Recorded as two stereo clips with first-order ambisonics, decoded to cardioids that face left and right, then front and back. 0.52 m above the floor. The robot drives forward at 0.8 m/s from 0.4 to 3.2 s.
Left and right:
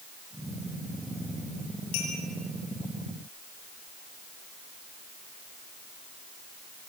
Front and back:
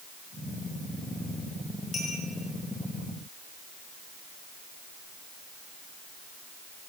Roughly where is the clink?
Left.